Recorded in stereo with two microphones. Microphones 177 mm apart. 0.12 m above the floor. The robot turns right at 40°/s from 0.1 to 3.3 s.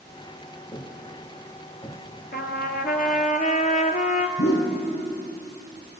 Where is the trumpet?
85° left, 0.6 m; by 4.3 s 125° left, 0.6 m.